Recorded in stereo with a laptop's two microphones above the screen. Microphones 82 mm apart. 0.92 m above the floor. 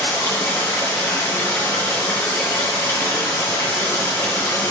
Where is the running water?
30° left (ahead or behind), 3 m.